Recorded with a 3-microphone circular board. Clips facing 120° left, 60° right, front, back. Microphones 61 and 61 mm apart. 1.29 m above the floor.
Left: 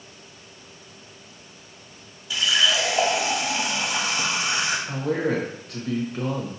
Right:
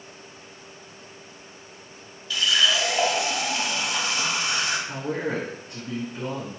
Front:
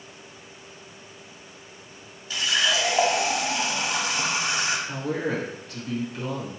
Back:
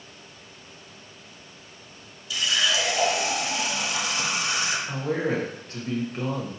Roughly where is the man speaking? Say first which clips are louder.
Left 4 dB, back 1 dB; behind left.